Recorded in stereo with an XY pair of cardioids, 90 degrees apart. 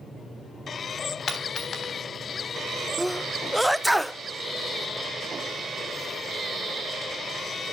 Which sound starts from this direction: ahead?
A sneeze, at 3.0 s.